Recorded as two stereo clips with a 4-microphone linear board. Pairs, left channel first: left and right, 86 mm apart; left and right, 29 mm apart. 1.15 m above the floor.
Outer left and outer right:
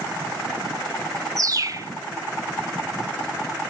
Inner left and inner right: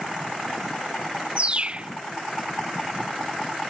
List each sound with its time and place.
1.4 s a bird: 40° right (ahead or behind)